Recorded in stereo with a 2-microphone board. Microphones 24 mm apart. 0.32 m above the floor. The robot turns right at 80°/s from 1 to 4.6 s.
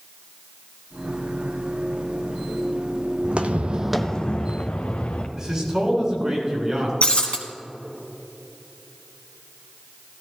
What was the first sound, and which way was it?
Footsteps, 35° right (ahead or behind).